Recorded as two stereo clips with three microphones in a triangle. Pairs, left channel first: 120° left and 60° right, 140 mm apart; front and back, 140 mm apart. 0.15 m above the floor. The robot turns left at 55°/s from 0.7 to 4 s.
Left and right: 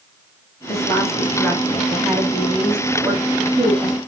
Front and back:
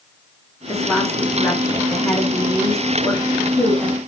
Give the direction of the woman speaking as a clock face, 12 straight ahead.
9 o'clock.